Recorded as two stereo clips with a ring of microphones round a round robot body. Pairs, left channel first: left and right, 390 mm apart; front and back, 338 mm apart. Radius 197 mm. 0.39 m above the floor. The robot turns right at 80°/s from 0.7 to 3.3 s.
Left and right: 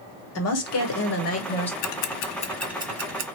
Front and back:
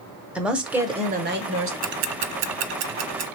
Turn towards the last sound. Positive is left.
turn(degrees=-130)